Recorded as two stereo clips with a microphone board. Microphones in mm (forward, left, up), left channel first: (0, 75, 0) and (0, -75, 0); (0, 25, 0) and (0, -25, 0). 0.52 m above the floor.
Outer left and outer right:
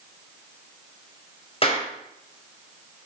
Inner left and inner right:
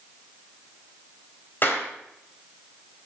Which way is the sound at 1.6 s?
40° left (ahead or behind).